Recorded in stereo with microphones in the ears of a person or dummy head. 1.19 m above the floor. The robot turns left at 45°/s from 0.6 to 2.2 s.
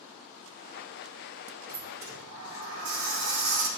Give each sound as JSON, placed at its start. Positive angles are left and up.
{"t": 1.7, "sound": "a sliding door", "side_deg": -60, "distance_m": 3.0}